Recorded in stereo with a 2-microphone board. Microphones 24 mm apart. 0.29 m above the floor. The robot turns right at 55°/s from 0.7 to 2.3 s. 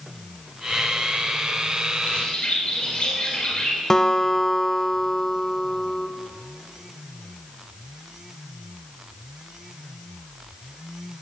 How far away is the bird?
About 1.8 m.